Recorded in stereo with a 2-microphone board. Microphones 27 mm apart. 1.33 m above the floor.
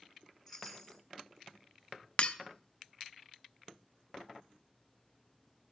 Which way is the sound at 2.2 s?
45° left (ahead or behind).